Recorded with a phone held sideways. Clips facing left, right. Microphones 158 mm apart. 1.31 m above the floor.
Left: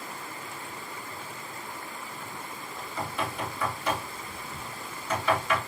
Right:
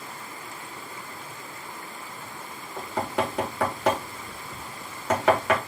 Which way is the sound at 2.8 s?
85° right.